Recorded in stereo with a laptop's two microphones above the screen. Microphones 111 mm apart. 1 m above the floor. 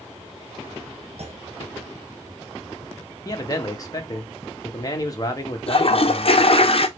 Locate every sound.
1.2 s a clunk: 60° right (ahead or behind), 0.7 m
3.2 s a man speaking: 30° left (ahead or behind), 1.1 m
5.7 s a toilet flushing: 55° left (ahead or behind), 0.5 m